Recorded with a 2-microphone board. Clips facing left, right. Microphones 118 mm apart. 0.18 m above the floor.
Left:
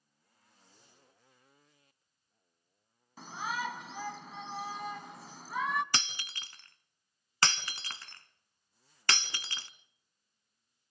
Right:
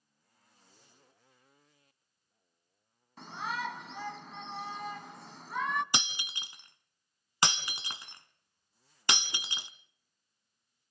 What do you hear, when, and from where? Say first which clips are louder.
3.2 s a shout: even; centre (ahead or behind), 1.2 m
5.9 s breaking glass: right 2 dB; 15° right (ahead or behind), 0.9 m